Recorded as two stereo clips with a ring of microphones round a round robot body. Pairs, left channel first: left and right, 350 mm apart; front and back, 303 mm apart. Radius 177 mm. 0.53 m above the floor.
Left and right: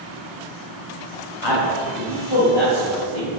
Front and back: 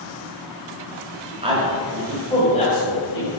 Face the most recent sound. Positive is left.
turn(degrees=55)